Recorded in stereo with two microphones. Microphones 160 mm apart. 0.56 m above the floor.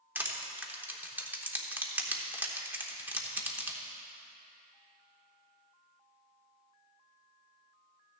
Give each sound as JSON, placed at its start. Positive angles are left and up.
{"t": 0.1, "sound": "crushing", "side_deg": -10, "distance_m": 0.9}